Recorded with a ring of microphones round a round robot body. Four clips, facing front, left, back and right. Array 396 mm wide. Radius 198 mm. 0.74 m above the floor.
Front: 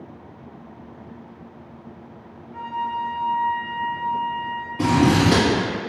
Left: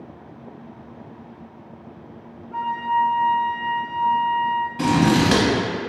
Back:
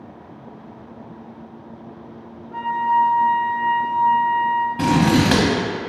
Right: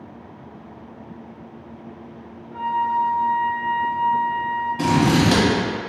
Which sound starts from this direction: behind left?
A flute, at 2.5 s.